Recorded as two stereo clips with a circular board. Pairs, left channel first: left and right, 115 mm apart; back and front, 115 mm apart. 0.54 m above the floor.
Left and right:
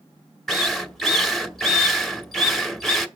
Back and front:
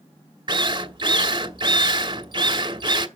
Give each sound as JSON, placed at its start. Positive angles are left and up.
{"t": 0.5, "sound": "a drill", "azimuth_deg": 5, "distance_m": 1.0}